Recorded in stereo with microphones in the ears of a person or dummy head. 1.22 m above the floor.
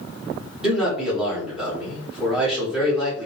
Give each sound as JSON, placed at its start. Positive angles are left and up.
{"t": 0.6, "sound": "a man speaking", "side_deg": -5, "distance_m": 2.0}